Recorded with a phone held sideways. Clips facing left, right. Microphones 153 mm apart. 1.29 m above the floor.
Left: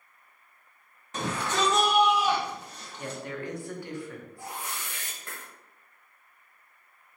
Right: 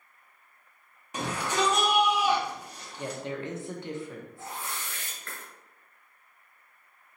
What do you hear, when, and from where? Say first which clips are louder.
1.1 s a shout: even; 10° right (ahead or behind), 1.3 m
3.0 s a woman speaking: right 2 dB; 20° right (ahead or behind), 0.6 m
4.4 s a whoosh: left 2 dB; 20° left (ahead or behind), 1.2 m